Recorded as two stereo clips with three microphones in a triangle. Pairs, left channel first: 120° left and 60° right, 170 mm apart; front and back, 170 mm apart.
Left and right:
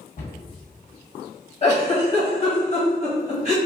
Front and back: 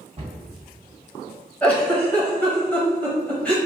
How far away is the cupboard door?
About 1.6 m.